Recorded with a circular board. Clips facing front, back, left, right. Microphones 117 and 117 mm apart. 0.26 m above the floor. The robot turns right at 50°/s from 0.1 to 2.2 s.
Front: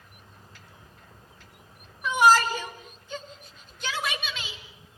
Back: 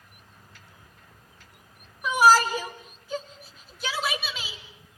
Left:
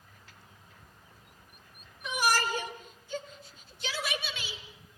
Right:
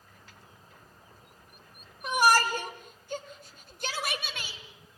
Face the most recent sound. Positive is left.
turn(degrees=-100)